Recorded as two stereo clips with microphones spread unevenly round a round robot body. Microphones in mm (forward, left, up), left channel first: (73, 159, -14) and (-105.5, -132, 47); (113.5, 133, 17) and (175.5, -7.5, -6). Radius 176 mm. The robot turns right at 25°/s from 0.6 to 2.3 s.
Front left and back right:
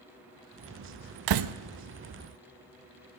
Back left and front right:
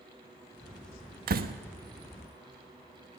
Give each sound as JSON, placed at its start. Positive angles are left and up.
{"t": 1.3, "sound": "a door slam", "azimuth_deg": -90, "distance_m": 0.8}